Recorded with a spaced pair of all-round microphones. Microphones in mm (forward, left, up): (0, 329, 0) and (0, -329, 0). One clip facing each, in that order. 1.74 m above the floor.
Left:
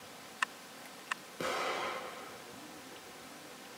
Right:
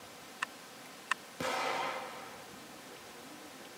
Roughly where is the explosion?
Right.